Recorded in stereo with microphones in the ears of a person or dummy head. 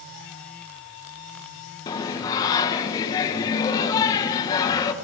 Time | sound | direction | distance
1.9 | singing | 20° left (ahead or behind) | 1.1 m